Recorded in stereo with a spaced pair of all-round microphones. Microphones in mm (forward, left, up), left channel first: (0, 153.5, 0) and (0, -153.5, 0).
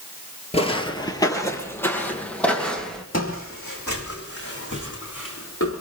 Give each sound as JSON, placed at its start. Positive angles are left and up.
{"t": 0.5, "sound": "footsteps", "side_deg": 20, "distance_m": 1.5}
{"t": 3.1, "sound": "footsteps", "side_deg": 40, "distance_m": 4.0}